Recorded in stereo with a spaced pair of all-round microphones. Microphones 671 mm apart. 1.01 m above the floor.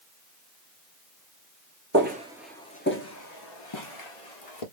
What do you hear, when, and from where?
1.9 s footsteps: 20° right (ahead or behind), 1.1 m; by 4.6 s 55° left (ahead or behind), 1.7 m